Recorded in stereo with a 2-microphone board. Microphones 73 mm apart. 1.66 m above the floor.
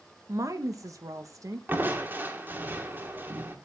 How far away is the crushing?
About 1.8 m.